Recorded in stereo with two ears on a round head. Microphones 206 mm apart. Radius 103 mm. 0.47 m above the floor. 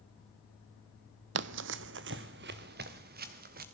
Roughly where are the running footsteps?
Right.